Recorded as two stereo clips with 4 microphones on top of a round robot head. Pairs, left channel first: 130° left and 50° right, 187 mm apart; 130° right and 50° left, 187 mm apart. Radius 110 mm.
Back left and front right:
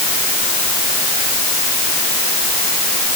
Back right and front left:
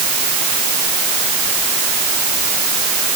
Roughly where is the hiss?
I don't hear a hiss.